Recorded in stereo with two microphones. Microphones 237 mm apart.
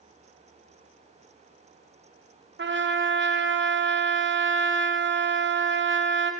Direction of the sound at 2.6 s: 50° right (ahead or behind).